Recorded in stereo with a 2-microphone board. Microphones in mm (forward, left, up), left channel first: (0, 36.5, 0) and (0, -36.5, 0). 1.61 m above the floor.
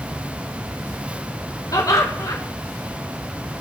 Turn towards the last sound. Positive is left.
turn(degrees=55)  # may be behind; listen again after turning